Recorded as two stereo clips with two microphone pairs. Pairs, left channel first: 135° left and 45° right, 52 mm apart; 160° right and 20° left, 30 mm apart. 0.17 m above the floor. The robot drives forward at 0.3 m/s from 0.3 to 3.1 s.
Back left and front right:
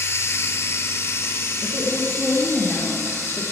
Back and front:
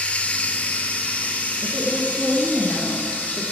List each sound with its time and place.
0.0 s running water: 165° left, 0.9 m; by 3.5 s 170° left, 1.7 m
1.6 s a woman speaking: 170° left, 1.9 m